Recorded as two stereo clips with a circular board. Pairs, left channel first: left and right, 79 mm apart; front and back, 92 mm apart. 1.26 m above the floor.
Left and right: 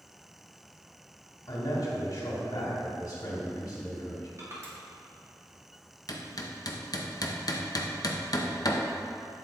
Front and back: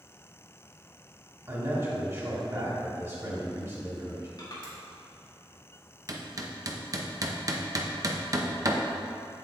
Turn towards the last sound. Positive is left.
turn(degrees=130)